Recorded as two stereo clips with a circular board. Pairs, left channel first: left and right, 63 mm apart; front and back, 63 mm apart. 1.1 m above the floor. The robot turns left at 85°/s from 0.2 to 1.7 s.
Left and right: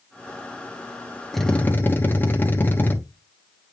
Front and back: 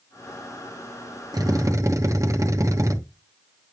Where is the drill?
175° left, 1.1 m; by 3.0 s 145° left, 1.1 m.